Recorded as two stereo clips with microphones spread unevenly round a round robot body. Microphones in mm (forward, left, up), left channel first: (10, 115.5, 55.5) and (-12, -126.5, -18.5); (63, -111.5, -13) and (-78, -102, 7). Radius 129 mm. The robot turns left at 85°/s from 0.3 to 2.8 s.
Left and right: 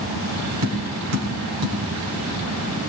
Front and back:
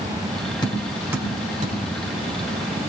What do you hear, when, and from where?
0.6 s tapping: 65° right, 4 m; by 1.8 s 160° right, 4 m